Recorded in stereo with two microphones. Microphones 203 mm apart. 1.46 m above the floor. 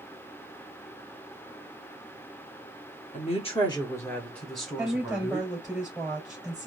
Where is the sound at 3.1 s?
40° left (ahead or behind), 1.2 m; by 5.5 s 10° right (ahead or behind), 2 m.